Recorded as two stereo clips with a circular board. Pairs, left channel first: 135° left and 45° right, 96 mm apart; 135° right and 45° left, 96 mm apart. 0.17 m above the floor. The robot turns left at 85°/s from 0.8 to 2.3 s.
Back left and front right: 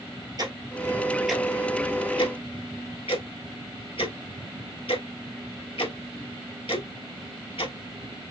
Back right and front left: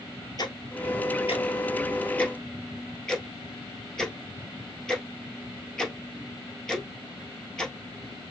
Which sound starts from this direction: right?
Ticking, at 0.4 s.